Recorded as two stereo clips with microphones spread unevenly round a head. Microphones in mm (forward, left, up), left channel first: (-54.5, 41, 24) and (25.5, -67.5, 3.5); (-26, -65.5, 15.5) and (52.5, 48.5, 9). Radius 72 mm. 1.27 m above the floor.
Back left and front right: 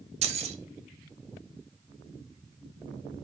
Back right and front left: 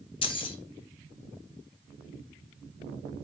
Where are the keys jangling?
90° right, 0.5 m.